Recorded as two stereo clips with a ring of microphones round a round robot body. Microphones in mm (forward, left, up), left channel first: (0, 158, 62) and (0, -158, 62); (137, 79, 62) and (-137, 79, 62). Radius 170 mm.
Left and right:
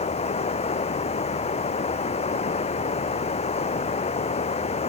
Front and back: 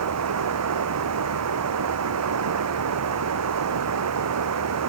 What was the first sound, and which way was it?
Running water, 160° left.